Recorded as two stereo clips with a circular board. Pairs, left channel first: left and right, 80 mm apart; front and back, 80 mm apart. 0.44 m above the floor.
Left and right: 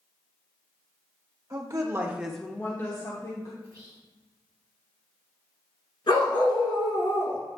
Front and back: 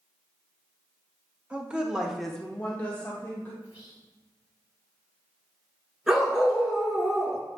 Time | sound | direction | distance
1.5 | a woman speaking | 110° right | 1.4 m
3.6 | whispering | 125° right | 1.9 m
6.1 | a dog barking | 95° left | 1.3 m